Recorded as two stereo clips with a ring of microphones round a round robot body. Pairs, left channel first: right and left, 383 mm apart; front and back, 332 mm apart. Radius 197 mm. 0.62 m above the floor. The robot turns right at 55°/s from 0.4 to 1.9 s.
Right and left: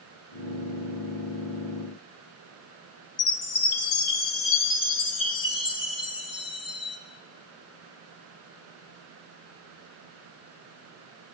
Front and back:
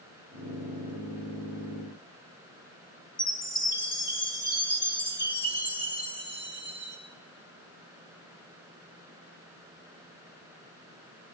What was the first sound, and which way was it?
A chime, 70° right.